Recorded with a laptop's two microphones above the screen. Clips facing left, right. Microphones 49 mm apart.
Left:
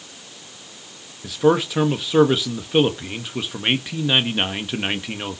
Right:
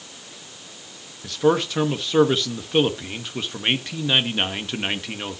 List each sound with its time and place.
1.2 s a man speaking: 5° left (ahead or behind), 1.5 m